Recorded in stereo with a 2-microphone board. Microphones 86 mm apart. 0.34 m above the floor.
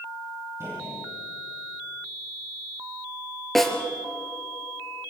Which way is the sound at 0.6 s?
30° right (ahead or behind).